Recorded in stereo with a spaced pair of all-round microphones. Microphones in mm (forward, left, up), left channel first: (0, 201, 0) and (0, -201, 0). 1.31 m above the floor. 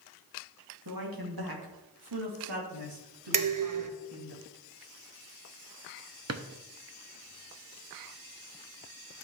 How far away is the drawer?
About 0.8 m.